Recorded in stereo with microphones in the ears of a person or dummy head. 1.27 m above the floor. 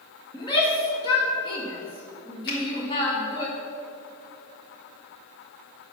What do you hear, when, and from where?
0.3 s a shout: 25° left (ahead or behind), 1.9 m
2.5 s a finger snap: 65° left (ahead or behind), 3.5 m